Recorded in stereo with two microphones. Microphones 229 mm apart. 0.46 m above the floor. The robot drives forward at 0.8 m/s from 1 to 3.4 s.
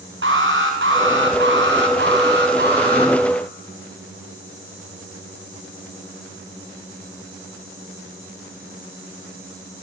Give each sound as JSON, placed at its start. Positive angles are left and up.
{"t": 0.2, "sound": "an alarm", "side_deg": -65, "distance_m": 5.0}